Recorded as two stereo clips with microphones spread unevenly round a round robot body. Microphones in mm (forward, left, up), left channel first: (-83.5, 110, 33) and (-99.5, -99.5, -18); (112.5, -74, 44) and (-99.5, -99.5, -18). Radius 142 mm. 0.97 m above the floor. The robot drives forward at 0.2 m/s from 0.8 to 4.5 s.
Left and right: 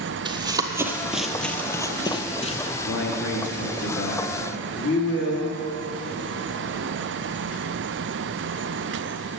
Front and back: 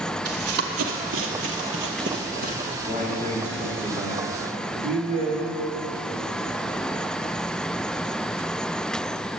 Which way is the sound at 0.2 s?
170° right.